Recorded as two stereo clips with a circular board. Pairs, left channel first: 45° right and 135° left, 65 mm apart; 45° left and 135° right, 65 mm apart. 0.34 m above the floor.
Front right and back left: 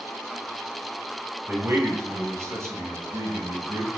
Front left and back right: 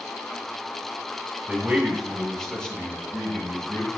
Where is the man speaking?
160° left, 1.5 m; by 3.9 s 100° left, 2.5 m.